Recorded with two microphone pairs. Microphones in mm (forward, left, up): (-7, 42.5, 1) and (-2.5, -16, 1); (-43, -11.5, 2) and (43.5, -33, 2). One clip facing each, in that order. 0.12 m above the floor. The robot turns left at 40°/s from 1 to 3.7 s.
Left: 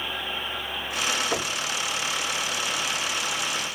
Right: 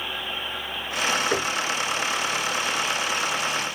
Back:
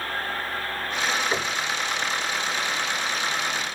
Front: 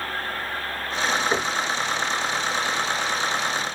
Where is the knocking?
65° right, 1.2 m; by 1.6 s 75° right, 1.2 m.